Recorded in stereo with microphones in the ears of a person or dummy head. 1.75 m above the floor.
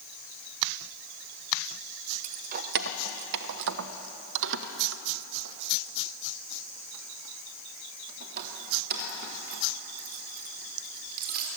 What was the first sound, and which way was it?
Keys jangling, 35° right (ahead or behind).